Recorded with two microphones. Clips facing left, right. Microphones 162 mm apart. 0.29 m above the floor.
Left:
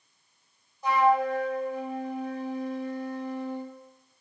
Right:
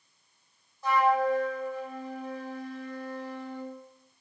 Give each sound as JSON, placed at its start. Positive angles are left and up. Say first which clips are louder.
{"t": 0.8, "sound": "a flute", "louder": "left 1 dB", "side_deg": 15, "distance_m": 0.7}